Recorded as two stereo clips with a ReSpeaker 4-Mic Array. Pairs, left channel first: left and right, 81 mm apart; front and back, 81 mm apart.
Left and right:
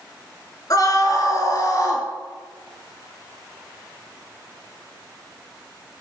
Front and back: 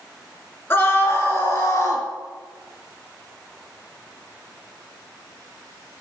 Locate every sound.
0.7 s a scream: 60° left, 3 m; by 2.1 s 50° left, 3.5 m